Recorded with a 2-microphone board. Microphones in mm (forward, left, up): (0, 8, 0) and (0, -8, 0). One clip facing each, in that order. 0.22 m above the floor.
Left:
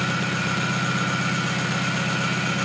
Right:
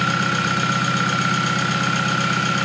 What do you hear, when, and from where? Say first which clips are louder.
0.0 s an engine running: right 5 dB; 45° right (ahead or behind), 3 m